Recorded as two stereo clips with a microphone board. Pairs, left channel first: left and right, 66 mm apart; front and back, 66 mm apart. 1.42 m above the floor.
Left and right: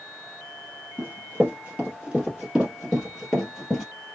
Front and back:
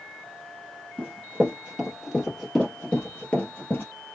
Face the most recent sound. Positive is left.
turn(degrees=0)